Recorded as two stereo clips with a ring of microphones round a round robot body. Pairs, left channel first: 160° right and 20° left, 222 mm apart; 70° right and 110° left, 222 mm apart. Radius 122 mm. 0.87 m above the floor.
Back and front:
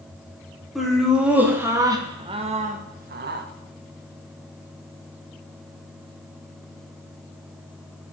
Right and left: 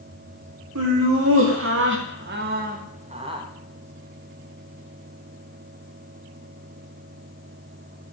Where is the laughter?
115° left, 2.5 m; by 3.5 s 45° left, 1.4 m.